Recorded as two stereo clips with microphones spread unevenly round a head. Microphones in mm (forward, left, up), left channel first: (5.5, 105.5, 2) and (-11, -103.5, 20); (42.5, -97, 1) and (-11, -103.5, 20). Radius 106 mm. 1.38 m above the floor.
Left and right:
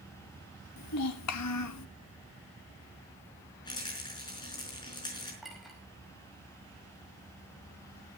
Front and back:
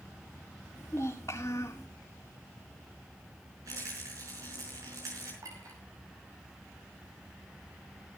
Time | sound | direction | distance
0.8 | a child speaking | 85° left | 1.4 m
3.6 | a rattle | 155° left | 4.5 m
5.4 | a clink | 175° left | 4.5 m